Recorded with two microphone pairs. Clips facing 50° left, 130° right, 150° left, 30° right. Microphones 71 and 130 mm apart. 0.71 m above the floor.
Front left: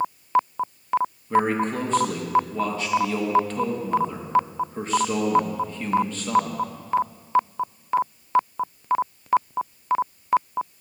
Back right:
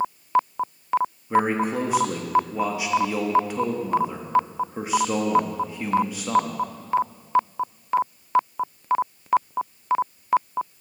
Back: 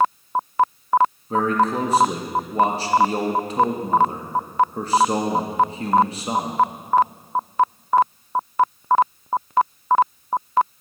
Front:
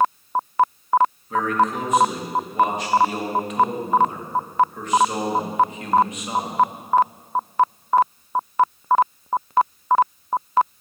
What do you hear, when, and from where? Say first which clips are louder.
1.3 s a man speaking: even, back 1 dB; 160° left, 0.8 m